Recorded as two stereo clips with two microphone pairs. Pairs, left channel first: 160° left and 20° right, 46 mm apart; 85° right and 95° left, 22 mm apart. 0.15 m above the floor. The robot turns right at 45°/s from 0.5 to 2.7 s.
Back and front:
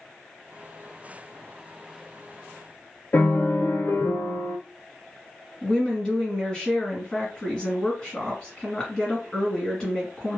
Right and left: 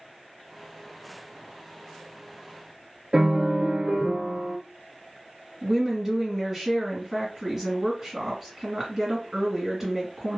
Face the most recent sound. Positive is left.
turn(degrees=130)